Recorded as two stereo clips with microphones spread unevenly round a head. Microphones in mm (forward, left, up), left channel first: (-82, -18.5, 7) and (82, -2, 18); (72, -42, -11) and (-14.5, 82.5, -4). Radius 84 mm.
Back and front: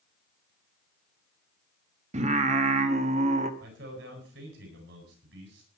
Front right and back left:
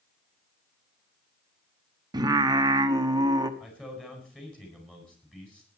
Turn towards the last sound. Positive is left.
turn(degrees=30)